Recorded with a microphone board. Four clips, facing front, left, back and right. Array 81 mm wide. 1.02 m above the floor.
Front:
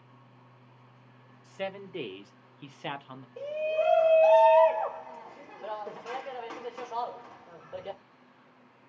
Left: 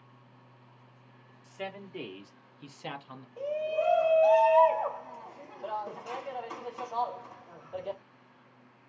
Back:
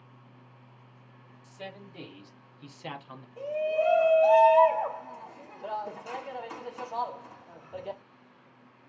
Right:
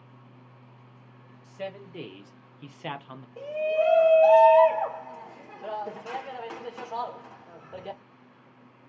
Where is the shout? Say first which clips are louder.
Right 5 dB, back 1 dB; 65° right, 1.6 m.